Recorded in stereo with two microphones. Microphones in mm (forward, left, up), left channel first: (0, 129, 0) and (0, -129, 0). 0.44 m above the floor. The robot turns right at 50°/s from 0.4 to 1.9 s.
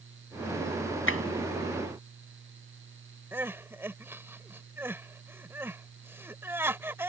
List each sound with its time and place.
1.1 s tapping: 55° left (ahead or behind); by 1.2 s 60° left (ahead or behind)
3.3 s crying: 10° right (ahead or behind)